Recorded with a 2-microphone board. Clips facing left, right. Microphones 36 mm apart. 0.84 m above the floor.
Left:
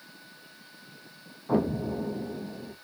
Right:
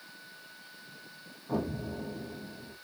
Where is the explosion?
35° left (ahead or behind), 0.9 m.